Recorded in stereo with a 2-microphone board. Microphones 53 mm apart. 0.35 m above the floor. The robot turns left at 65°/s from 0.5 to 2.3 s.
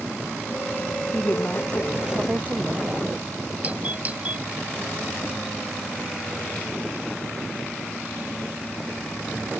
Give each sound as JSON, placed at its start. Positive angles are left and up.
{"t": 1.1, "sound": "a woman speaking", "azimuth_deg": 50}
{"t": 3.6, "sound": "a doorbell", "side_deg": -30}